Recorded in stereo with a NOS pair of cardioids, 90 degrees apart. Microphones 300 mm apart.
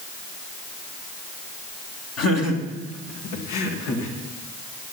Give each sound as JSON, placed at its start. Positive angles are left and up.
{"t": 2.2, "sound": "laughter", "azimuth_deg": 55, "distance_m": 3.0}